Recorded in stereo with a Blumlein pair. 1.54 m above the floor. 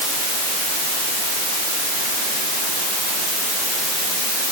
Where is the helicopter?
I don't hear a helicopter.